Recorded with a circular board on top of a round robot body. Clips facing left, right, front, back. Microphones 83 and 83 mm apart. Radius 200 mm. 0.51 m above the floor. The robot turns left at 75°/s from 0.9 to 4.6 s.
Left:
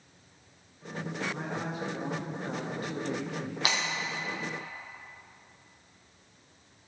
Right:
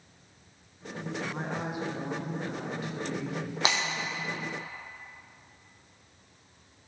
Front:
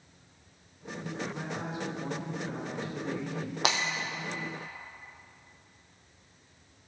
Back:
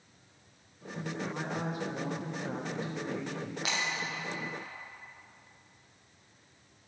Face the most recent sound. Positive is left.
turn(degrees=-95)